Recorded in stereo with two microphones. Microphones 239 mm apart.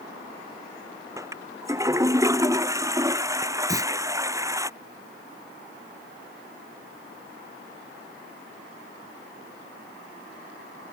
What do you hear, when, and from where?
1.2 s a toilet flushing: 15° right (ahead or behind)
3.7 s a clunk: 15° right (ahead or behind)